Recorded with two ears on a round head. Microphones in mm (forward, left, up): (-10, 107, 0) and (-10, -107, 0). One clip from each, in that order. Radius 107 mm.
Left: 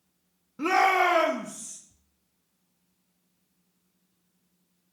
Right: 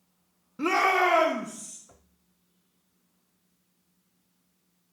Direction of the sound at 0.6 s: Centre (ahead or behind).